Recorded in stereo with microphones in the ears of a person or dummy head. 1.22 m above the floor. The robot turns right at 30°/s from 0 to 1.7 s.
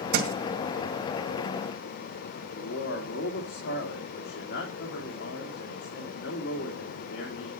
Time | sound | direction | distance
0.1 | a thud | 60° right (ahead or behind) | 1.8 m
2.5 | a man speaking | 75° left (ahead or behind) | 2.5 m